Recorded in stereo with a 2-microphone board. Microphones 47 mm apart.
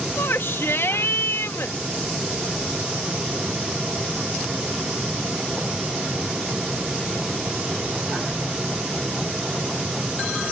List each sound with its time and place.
0.2 s a shout: 60° left (ahead or behind)